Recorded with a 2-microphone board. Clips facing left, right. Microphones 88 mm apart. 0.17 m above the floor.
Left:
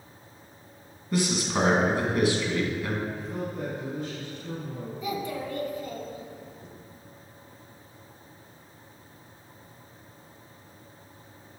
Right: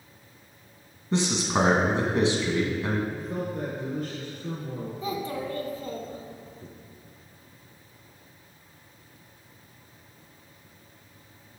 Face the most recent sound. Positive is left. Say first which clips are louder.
# even
turn(degrees=-35)  # may be behind; listen again after turning